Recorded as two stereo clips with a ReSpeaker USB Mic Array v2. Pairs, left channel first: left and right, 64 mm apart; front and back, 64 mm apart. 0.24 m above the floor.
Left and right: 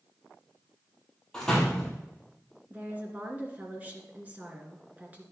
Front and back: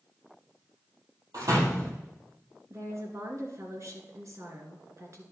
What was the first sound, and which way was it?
A door slam, 170° left.